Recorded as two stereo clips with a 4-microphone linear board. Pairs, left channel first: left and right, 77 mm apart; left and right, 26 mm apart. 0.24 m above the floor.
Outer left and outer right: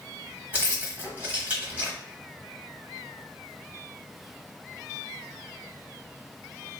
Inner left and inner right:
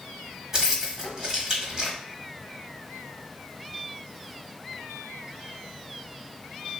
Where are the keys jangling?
15° right (ahead or behind), 1.0 m.